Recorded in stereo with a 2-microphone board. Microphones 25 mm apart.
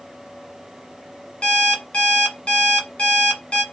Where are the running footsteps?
No running footsteps in this recording.